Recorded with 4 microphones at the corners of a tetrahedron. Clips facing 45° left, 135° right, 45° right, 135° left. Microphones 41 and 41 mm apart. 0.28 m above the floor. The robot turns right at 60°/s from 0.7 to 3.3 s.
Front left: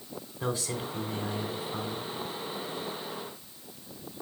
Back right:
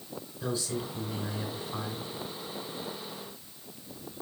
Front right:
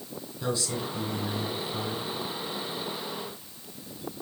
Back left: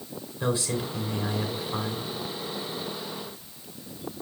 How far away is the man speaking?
About 2 m.